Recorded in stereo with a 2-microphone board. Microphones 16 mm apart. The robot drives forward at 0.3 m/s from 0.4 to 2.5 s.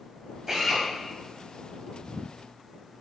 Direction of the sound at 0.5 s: 30° right (ahead or behind).